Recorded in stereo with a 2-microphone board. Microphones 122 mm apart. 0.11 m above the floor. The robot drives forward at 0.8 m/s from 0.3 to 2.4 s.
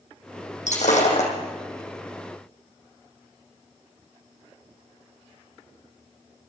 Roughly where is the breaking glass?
Left.